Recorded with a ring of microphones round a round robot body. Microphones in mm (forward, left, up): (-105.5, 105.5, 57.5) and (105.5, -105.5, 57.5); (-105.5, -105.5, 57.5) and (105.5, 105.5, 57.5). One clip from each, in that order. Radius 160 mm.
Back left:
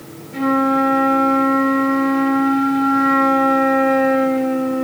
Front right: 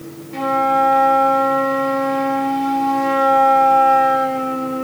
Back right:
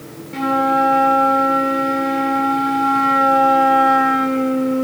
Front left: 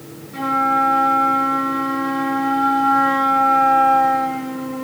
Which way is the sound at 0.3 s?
100° right.